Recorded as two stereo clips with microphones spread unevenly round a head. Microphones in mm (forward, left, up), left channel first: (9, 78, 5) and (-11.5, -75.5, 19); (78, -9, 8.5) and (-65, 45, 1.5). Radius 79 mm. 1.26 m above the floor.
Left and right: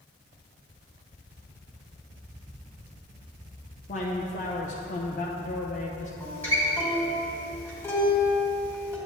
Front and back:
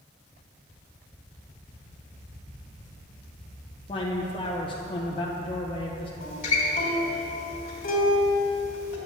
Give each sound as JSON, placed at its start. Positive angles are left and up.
{"t": 3.9, "sound": "a man speaking", "azimuth_deg": 40, "distance_m": 0.7}
{"t": 6.2, "sound": "a guitar", "azimuth_deg": 0, "distance_m": 1.7}